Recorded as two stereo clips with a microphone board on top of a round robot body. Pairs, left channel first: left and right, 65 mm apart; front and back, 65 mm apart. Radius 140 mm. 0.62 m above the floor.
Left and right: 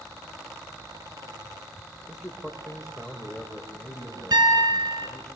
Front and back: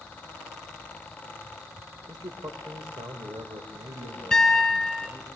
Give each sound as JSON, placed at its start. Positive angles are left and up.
{"t": 2.1, "sound": "a man speaking", "azimuth_deg": -175, "distance_m": 2.5}
{"t": 4.3, "sound": "a piano", "azimuth_deg": -85, "distance_m": 3.5}